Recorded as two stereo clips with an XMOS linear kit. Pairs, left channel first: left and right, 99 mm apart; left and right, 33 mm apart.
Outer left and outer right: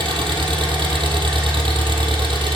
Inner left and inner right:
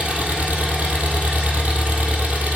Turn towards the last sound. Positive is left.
turn(degrees=-55)  # may be behind; listen again after turning